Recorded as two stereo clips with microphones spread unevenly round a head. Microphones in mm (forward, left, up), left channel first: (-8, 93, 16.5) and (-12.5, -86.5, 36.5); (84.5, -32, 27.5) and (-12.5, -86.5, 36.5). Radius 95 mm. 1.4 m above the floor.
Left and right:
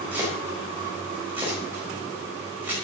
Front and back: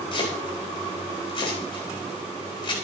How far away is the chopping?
About 4.5 m.